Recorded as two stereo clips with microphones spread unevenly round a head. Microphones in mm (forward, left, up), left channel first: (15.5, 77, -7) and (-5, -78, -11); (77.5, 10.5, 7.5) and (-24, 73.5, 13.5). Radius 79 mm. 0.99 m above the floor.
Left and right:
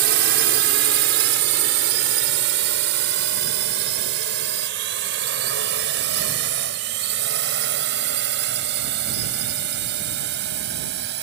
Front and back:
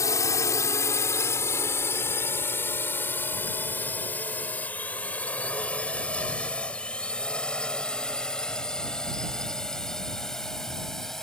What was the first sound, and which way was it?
A drone, 100° right.